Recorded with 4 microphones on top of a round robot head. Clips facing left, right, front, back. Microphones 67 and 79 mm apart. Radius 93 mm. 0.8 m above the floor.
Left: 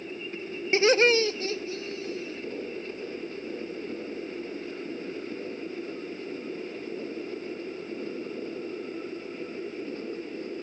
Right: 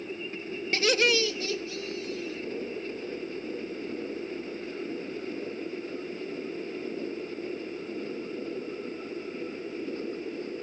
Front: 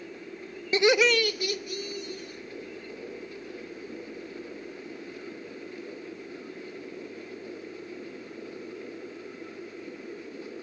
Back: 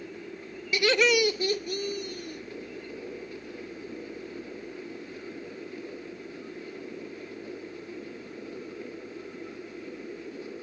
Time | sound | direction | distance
0.7 | laughter | 35° left | 0.6 m